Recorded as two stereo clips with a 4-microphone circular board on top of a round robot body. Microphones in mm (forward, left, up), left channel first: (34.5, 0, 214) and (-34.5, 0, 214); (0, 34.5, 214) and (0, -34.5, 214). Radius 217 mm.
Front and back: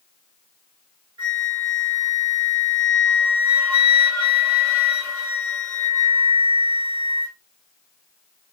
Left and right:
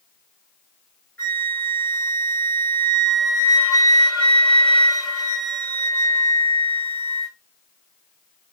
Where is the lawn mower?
No lawn mower in this recording.